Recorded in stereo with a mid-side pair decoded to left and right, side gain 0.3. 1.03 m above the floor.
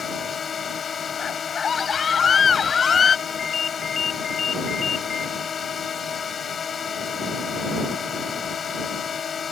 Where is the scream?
60° left.